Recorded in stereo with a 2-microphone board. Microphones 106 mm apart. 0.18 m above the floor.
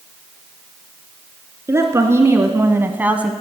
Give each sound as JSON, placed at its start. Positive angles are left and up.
{"t": 1.7, "sound": "a woman speaking", "side_deg": -25, "distance_m": 1.8}